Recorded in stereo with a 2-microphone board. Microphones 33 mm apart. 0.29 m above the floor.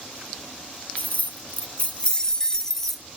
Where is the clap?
I don't hear a clap.